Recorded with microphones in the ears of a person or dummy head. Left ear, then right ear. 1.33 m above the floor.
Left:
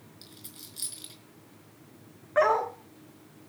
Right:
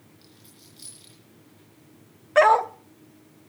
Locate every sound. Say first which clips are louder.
0.2 s a dropped coin: left 7 dB; 30° left (ahead or behind), 4.5 m
2.4 s a dog barking: right 7 dB; 30° right (ahead or behind), 0.9 m